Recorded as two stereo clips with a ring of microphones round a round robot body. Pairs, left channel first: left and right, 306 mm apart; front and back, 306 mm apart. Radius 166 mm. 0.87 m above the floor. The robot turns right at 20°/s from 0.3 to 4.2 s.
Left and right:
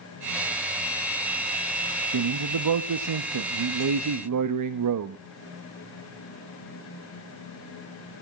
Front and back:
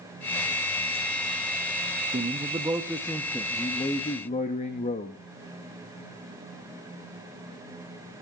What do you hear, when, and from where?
2.1 s a man speaking: 110° right, 0.9 m; by 5.2 s 70° right, 0.9 m